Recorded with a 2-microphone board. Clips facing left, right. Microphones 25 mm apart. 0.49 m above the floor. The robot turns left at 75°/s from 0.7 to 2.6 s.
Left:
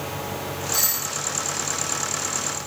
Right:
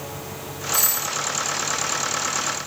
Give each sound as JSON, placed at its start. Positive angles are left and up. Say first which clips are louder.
{"t": 0.7, "sound": "a doorbell", "louder": "right 4 dB", "azimuth_deg": 140, "distance_m": 2.5}